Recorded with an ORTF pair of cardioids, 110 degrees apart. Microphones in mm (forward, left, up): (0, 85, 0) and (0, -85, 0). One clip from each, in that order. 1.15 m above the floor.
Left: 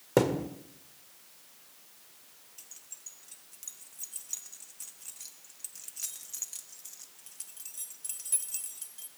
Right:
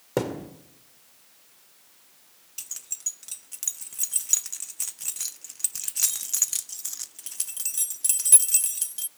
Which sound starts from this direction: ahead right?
Keys jangling, at 2.6 s.